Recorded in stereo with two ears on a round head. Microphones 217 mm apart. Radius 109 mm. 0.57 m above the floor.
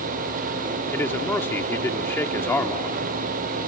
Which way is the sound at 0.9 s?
10° left (ahead or behind).